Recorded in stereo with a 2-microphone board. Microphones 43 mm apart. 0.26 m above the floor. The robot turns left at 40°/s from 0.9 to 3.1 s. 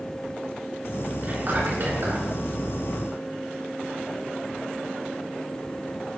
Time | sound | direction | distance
1.2 | whispering | 45° right | 3 m